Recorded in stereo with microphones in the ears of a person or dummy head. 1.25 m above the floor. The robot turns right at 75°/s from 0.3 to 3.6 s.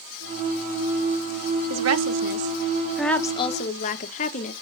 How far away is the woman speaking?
About 0.9 m.